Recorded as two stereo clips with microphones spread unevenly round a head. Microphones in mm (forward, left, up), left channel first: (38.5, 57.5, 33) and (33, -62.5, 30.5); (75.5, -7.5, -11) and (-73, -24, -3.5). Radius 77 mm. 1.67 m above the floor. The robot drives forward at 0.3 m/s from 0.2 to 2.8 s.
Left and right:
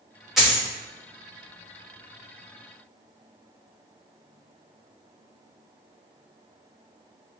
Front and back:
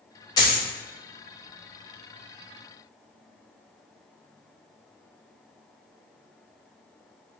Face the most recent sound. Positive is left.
turn(degrees=-175)